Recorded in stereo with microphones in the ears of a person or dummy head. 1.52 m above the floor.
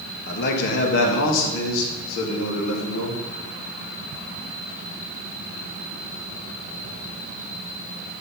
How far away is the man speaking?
About 1.6 m.